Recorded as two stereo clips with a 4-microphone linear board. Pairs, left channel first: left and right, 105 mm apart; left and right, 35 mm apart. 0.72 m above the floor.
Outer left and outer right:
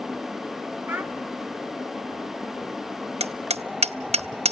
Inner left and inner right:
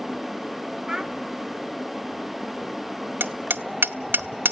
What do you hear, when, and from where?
0.9 s a child speaking: 20° right (ahead or behind), 1.5 m
3.2 s hammering: 80° right, 0.8 m